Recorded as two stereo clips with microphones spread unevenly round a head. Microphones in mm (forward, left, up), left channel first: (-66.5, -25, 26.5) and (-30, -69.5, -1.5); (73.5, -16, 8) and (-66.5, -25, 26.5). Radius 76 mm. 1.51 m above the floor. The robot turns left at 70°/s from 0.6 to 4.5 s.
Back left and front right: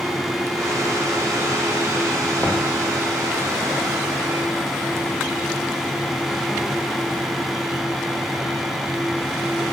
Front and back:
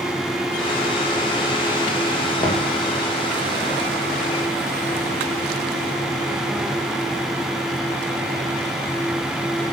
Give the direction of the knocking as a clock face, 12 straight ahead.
10 o'clock.